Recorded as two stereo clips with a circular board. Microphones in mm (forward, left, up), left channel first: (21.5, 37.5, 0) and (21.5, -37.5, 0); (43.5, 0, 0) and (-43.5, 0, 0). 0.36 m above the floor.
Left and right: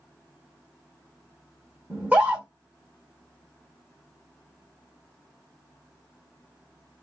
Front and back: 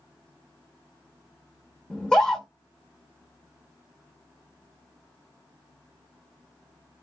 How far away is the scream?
About 0.8 m.